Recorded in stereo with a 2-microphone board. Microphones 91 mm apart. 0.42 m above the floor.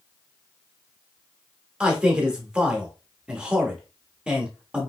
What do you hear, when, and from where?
1.8 s a man speaking: 10° right (ahead or behind), 0.8 m